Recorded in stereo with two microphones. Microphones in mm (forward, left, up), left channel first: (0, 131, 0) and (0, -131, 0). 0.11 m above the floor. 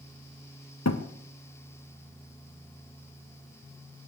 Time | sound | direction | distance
0.8 | a thud | 90° left | 1.8 m